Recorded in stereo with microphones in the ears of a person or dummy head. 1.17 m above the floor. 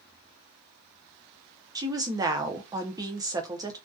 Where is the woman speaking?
20° right (ahead or behind), 0.5 m.